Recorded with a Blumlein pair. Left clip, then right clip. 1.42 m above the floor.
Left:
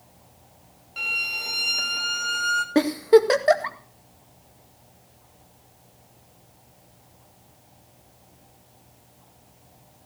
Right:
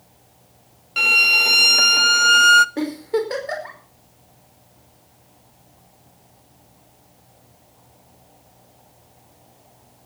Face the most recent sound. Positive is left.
turn(degrees=45)